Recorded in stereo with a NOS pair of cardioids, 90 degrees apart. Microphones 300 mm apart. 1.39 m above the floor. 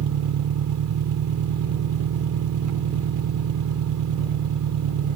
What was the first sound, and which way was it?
An engine running, 65° right.